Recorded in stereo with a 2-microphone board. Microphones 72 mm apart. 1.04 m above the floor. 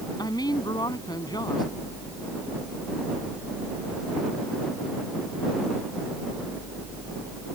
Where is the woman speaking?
60° left (ahead or behind).